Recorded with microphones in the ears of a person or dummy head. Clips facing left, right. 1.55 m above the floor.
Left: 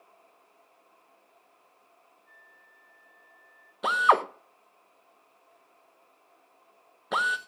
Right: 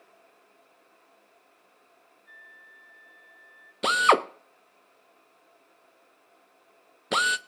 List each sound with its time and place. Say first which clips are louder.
2.3 s a flute: right 3 dB; 40° right (ahead or behind), 5 m
3.8 s a drill: right 2 dB; 30° right (ahead or behind), 0.8 m